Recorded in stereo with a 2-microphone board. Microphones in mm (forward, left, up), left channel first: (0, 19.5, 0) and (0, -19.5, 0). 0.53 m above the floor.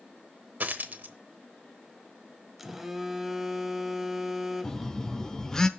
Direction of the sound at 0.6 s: 50° right (ahead or behind).